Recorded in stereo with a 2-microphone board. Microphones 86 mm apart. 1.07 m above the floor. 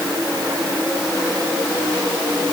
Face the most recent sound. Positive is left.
No sound to turn to.